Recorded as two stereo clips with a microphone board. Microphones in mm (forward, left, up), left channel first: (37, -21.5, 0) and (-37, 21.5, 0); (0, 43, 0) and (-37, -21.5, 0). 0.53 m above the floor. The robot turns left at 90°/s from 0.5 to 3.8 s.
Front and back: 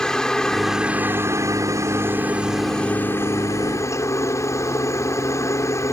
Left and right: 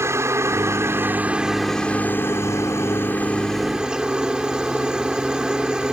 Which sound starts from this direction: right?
A helicopter, at 0.0 s.